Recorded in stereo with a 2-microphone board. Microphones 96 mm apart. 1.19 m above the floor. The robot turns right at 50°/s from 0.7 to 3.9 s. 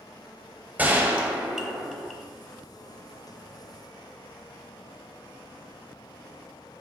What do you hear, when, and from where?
0.8 s a gunshot: 15° right (ahead or behind), 1.0 m; by 2.2 s 5° left (ahead or behind), 1.0 m